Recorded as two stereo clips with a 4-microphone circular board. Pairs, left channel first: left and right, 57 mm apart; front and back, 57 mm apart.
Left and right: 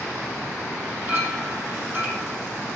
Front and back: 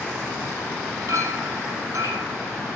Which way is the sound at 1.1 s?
150° right.